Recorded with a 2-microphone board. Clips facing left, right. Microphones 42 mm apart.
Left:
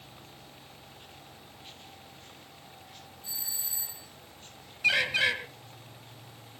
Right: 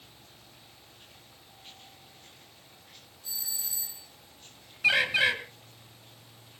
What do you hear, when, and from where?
3.2 s a doorbell: 15° left (ahead or behind), 4.5 m
4.8 s a bird: 10° right (ahead or behind), 1.7 m